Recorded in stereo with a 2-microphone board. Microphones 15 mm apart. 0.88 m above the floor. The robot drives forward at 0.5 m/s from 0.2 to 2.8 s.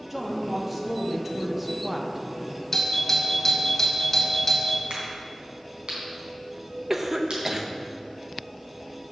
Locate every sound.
0.1 s a woman speaking: 10° right (ahead or behind), 1.4 m; by 2.3 s 15° right (ahead or behind), 0.8 m
2.7 s a doorbell: 25° left (ahead or behind), 1.5 m
4.9 s a crack: 85° right, 3.5 m
6.9 s a cough: 35° right (ahead or behind), 0.8 m